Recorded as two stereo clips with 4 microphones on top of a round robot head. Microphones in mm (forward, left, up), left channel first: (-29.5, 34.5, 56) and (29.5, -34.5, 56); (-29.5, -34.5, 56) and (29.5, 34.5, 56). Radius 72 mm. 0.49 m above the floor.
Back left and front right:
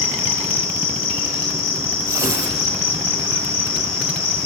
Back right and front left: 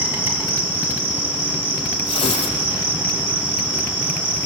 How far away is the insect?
About 3.5 m.